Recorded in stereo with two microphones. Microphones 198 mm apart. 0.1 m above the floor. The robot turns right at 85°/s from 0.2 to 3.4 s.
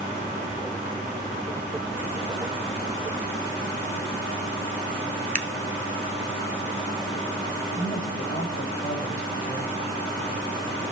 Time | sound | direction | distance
5.3 | scissors | 40° right (ahead or behind) | 0.8 m
7.8 | a woman speaking | 50° left (ahead or behind) | 3.5 m